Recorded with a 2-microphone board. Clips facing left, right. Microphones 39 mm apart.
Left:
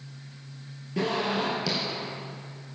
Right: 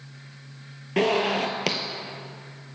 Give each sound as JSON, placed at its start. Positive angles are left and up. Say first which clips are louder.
{"t": 1.0, "sound": "a zipper", "louder": "right 5 dB", "side_deg": -65, "distance_m": 1.0}